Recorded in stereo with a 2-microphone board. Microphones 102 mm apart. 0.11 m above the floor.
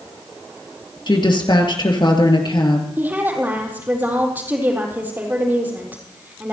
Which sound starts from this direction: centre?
A woman speaking, at 3.0 s.